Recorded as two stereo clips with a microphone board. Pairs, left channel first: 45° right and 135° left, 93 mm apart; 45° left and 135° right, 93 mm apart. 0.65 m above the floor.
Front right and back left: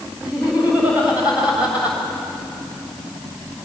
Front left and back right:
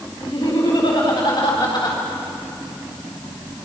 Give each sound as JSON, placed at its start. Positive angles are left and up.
{"t": 0.2, "sound": "laughter", "azimuth_deg": 60, "distance_m": 4.0}